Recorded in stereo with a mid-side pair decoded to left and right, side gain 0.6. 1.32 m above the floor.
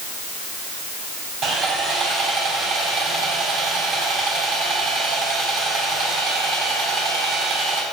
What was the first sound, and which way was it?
Sawing, 50° right.